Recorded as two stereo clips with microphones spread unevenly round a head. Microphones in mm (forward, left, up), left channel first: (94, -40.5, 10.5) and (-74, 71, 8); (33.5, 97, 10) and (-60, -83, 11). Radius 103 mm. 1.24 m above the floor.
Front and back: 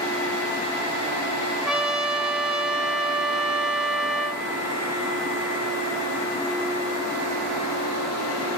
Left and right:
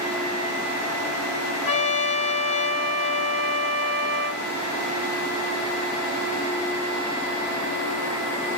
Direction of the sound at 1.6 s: 60° left.